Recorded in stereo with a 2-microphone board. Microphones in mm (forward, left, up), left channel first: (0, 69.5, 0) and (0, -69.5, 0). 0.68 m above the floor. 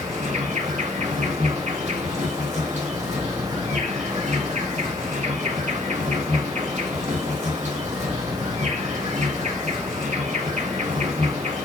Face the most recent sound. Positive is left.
turn(degrees=-55)  # may be behind; listen again after turning